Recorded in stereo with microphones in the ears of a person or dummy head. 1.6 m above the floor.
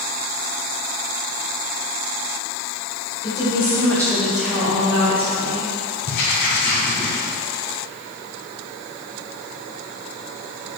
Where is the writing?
45° left (ahead or behind), 1.0 m.